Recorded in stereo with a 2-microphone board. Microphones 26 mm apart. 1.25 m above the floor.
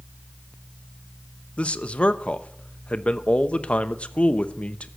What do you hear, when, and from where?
1.6 s a man speaking: 50° left (ahead or behind), 0.8 m